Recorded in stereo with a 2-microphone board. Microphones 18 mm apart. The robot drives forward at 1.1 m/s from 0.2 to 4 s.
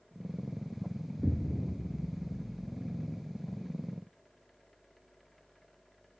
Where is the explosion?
10° left (ahead or behind), 1.0 m; by 3.1 s 5° left (ahead or behind), 3 m.